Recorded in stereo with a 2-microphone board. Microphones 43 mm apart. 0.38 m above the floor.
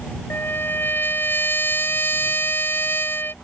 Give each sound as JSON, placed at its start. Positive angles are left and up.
{"t": 0.3, "sound": "a trumpet", "side_deg": 60}